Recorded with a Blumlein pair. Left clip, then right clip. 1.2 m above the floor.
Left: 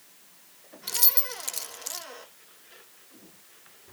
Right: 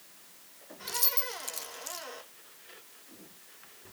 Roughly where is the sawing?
No sawing in this recording.